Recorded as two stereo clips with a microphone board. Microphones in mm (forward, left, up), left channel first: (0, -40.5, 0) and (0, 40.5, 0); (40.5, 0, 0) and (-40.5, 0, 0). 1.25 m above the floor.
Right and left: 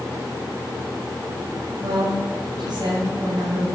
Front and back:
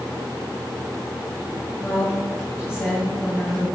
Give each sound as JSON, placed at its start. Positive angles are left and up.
{"t": 1.8, "sound": "a woman speaking", "azimuth_deg": 55, "distance_m": 5.5}